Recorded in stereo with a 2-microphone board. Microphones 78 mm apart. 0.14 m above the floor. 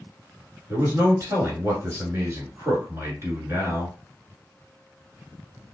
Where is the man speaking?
40° right (ahead or behind), 1.5 m.